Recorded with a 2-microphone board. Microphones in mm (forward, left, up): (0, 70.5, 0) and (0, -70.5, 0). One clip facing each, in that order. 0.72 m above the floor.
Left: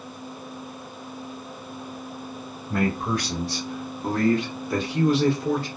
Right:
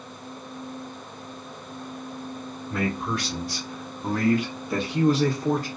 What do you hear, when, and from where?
2.7 s a man speaking: 45° left (ahead or behind), 1.1 m; by 5.7 s 45° right (ahead or behind), 1.2 m